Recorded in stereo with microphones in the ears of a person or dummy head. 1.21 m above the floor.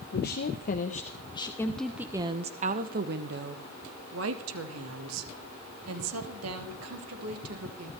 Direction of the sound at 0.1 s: 55° left (ahead or behind).